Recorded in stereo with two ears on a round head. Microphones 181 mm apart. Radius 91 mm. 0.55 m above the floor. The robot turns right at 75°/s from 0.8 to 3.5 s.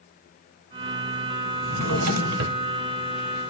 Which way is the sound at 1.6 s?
65° right (ahead or behind).